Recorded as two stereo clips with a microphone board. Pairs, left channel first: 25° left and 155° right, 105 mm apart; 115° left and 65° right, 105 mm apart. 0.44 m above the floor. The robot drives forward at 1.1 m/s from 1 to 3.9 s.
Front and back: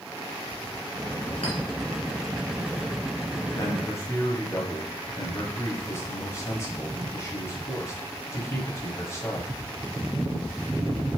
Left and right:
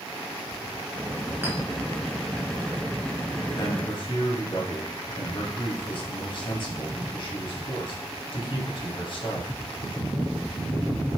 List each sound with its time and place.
1.4 s a clink: straight ahead, 3 m
3.5 s a man speaking: 75° left, 3.5 m; by 9.5 s 80° left, 3 m